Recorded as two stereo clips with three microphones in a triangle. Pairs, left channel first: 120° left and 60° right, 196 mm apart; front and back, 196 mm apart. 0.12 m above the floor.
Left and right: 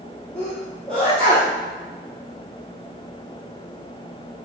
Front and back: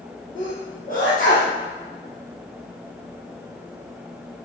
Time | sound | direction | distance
0.3 | a sneeze | 35° left | 3 m